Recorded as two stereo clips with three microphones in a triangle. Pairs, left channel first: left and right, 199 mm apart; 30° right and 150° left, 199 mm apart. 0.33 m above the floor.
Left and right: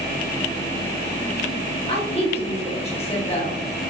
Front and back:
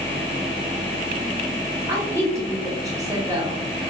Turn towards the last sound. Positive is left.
turn(degrees=90)